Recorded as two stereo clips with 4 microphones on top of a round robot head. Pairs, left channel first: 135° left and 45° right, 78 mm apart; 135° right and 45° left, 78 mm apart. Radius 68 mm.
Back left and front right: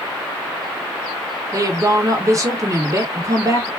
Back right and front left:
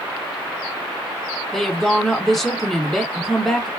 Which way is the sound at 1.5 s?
50° right.